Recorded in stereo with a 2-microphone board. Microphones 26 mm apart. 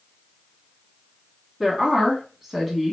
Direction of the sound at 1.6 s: 15° right (ahead or behind).